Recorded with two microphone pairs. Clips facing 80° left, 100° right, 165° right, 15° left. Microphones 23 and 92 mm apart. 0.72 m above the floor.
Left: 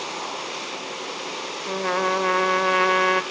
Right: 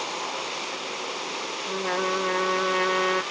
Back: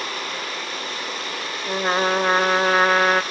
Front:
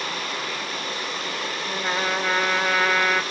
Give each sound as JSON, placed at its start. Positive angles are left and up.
{"t": 1.7, "sound": "a trumpet", "azimuth_deg": 145, "distance_m": 1.6}